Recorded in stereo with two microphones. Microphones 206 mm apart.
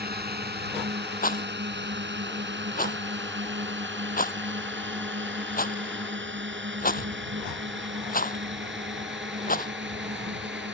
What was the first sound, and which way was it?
A drone, 50° right (ahead or behind).